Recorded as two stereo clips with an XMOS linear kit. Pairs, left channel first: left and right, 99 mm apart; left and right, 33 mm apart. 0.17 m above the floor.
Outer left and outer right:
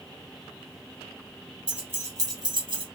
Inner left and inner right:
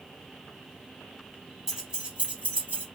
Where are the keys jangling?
10° right (ahead or behind), 1.3 m; by 2.8 s 60° right (ahead or behind), 1.7 m.